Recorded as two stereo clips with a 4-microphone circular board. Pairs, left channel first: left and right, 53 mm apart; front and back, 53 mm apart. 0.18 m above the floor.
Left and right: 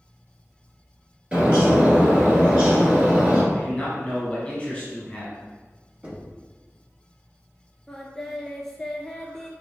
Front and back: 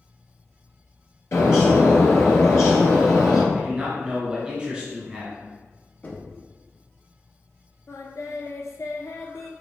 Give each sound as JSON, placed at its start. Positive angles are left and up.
{"t": 1.3, "sound": "a bird", "azimuth_deg": -25, "distance_m": 1.7}
{"t": 3.5, "sound": "a man speaking", "azimuth_deg": 130, "distance_m": 1.4}
{"t": 6.0, "sound": "knocking", "azimuth_deg": -45, "distance_m": 1.0}
{"t": 7.9, "sound": "singing", "azimuth_deg": 5, "distance_m": 0.6}